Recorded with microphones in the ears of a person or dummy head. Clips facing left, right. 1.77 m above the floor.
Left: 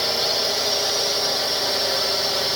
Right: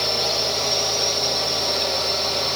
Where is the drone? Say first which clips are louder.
Even; 5° left (ahead or behind); by 2.6 s 10° left (ahead or behind).